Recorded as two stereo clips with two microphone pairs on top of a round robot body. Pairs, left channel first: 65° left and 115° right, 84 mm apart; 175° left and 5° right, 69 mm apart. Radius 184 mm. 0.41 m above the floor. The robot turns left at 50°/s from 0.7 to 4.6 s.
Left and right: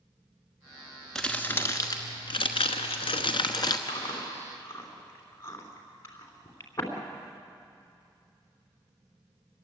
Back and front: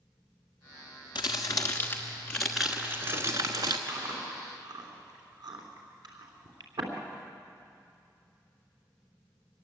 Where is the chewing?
45° left, 3 m; by 6.9 s 10° left, 3 m.